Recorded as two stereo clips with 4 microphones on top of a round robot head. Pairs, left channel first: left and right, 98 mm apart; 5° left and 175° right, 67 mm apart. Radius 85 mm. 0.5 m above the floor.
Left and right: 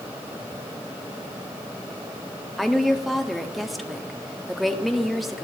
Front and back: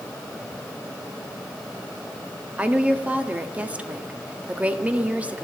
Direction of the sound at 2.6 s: 175° left.